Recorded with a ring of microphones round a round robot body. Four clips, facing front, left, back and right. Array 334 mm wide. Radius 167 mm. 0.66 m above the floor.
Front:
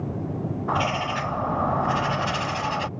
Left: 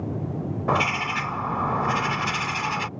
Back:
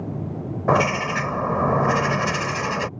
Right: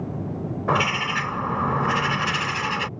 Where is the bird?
165° right.